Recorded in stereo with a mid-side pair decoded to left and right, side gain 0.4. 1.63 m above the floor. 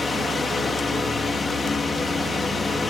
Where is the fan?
40° left.